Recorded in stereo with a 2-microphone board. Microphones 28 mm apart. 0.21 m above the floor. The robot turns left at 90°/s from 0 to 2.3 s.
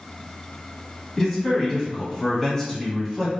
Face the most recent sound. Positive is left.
turn(degrees=15)  # may be behind; listen again after turning